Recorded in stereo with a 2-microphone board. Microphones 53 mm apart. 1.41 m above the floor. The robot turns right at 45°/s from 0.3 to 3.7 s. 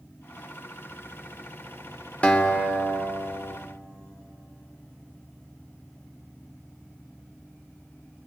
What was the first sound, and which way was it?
A guitar, 25° left.